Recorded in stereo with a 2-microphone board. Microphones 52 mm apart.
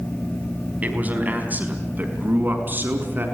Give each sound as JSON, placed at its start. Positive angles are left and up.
{"t": 0.8, "sound": "a man speaking", "side_deg": -35, "distance_m": 4.0}